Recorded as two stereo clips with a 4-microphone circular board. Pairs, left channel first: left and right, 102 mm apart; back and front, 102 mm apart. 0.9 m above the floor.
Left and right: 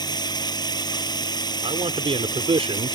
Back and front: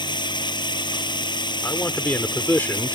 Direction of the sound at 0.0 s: 140° left.